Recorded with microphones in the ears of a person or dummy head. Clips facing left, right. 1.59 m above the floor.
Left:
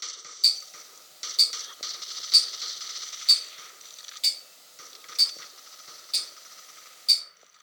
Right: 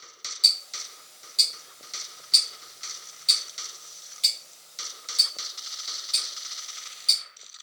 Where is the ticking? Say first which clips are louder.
Right 2 dB; centre (ahead or behind), 0.7 m.